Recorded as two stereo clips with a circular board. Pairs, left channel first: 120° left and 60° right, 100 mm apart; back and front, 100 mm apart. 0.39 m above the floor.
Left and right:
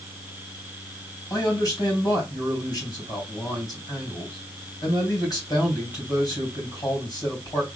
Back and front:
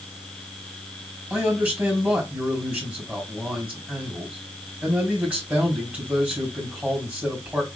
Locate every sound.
1.3 s a man speaking: 75° left, 3 m